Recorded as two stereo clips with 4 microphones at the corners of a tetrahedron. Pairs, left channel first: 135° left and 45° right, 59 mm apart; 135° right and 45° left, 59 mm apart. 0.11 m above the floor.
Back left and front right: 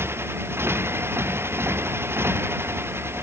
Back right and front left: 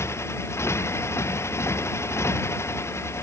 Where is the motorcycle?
95° right.